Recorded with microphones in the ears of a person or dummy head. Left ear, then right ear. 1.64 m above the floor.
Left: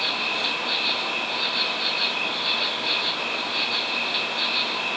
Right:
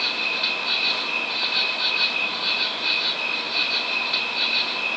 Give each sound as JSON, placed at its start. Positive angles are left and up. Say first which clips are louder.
{"t": 0.0, "sound": "an insect", "louder": "right 1 dB", "side_deg": -85, "distance_m": 3.0}